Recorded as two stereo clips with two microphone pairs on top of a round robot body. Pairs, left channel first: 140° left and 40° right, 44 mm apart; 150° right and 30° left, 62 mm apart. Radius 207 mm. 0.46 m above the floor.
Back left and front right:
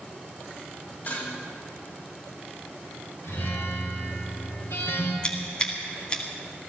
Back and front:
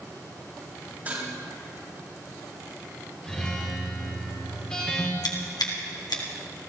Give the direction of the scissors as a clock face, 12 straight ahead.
5 o'clock.